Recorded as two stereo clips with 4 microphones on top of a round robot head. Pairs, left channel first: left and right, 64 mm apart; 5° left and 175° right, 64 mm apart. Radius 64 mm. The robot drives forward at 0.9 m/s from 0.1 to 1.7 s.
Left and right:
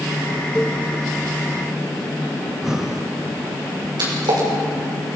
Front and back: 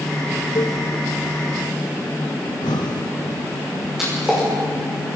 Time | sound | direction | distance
0.6 | a cowbell | 10° left | 0.9 m
2.5 | breathing | 5° right | 1.3 m
4.0 | a splash | 90° right | 6.5 m